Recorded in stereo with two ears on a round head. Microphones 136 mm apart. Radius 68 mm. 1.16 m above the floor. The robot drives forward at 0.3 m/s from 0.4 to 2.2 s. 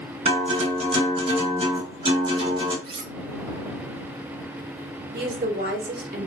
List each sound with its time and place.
0.2 s a guitar: 40° right (ahead or behind), 1.2 m; by 2.7 s 35° right (ahead or behind), 1.4 m
2.8 s cutlery clinking: 35° right (ahead or behind), 0.5 m
5.1 s a woman speaking: 70° right (ahead or behind), 1.0 m